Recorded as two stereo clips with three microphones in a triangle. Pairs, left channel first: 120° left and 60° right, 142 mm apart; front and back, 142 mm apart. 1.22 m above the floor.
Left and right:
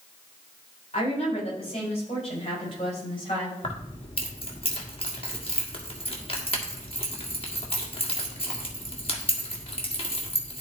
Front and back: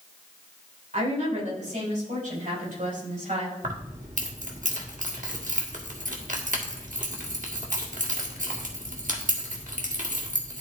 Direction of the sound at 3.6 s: 165° left.